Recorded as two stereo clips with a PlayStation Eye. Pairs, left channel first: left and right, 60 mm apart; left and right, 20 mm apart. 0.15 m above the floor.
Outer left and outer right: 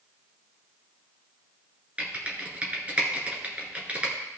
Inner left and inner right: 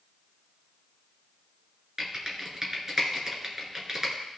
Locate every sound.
2.0 s typing on a keyboard: 25° right (ahead or behind), 1.9 m